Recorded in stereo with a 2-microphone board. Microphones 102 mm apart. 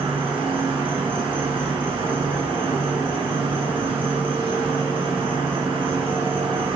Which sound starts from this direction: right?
An insect, at 0.0 s.